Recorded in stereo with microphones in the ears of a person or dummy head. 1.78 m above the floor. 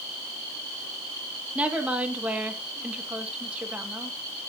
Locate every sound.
1.6 s a woman speaking: 5° right (ahead or behind), 1.9 m